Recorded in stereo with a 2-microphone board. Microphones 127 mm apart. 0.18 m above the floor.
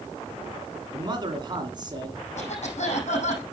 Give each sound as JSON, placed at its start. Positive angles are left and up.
{"t": 0.9, "sound": "a man speaking", "side_deg": -35, "distance_m": 2.0}
{"t": 2.4, "sound": "a cough", "side_deg": 60, "distance_m": 6.5}